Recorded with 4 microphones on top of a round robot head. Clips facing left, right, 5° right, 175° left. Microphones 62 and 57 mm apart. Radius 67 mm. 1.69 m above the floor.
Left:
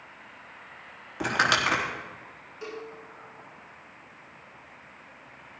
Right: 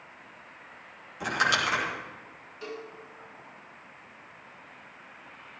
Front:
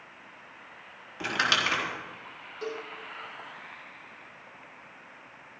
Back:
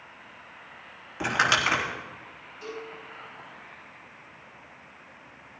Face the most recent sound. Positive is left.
turn(degrees=15)